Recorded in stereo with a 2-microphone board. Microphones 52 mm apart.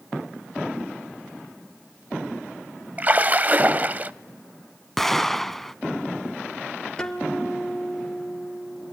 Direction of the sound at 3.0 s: 35° right (ahead or behind).